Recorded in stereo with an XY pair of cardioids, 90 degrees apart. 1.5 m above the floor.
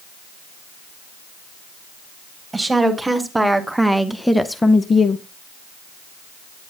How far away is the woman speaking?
About 1.7 m.